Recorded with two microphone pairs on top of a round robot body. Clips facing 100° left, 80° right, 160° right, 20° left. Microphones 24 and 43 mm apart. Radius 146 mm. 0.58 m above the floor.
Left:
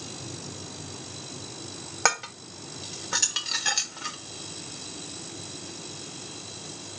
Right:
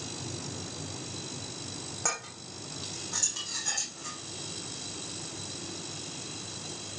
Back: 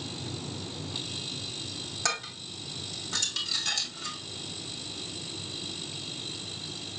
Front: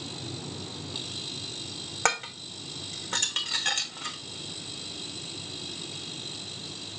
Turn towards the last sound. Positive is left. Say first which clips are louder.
# left 11 dB, front 6 dB
turn(degrees=70)